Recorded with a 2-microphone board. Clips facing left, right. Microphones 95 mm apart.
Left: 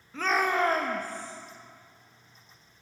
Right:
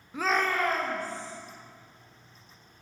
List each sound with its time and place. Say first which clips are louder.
0.1 s a shout: left 1 dB; 15° right (ahead or behind), 0.6 m; by 1.3 s 55° left (ahead or behind), 1.0 m